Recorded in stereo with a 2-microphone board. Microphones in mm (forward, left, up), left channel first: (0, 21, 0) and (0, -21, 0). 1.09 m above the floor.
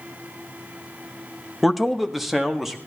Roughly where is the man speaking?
Centre.